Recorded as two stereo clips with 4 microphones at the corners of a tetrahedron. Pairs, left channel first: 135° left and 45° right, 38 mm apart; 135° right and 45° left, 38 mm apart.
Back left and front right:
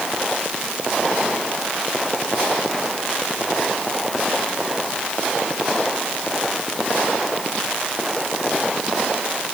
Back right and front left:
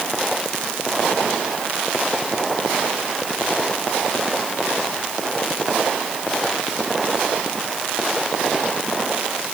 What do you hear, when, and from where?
Only background noise.